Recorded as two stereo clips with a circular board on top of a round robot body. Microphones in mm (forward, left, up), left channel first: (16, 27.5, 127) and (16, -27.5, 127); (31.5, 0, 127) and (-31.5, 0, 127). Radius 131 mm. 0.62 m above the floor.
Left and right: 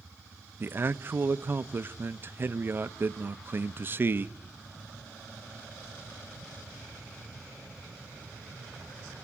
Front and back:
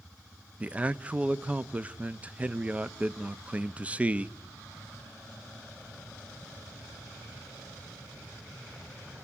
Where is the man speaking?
120° right, 0.7 m.